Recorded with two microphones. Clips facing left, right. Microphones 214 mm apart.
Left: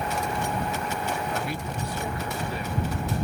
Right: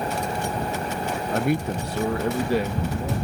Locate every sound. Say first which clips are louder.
1.3 s a man speaking: right 8 dB; 45° right (ahead or behind); by 3.2 s 80° right